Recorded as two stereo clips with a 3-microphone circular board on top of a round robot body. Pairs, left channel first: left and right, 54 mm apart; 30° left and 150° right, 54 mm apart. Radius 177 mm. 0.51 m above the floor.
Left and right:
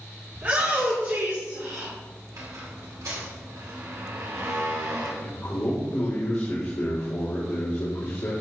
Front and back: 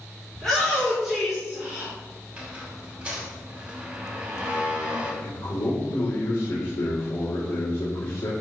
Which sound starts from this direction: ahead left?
A man speaking, at 5.2 s.